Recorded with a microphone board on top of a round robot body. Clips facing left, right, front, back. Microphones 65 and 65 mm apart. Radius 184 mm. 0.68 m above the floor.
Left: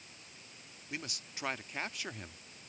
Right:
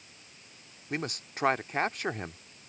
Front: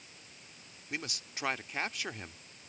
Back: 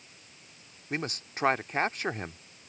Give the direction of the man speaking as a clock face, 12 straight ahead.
4 o'clock.